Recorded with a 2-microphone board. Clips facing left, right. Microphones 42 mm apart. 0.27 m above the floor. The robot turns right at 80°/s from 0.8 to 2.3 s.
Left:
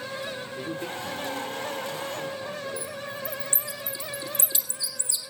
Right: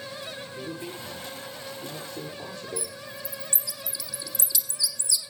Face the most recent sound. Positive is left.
turn(degrees=30)  # may be behind; listen again after turning